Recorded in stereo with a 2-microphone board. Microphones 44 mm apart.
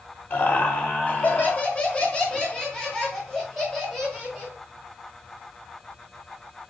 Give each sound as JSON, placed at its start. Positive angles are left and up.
{"t": 0.3, "sound": "laughter", "side_deg": 40, "distance_m": 1.8}